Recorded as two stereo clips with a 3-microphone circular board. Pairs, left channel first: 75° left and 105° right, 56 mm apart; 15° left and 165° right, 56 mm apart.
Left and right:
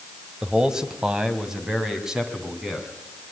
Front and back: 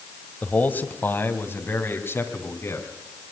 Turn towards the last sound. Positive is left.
turn(degrees=-25)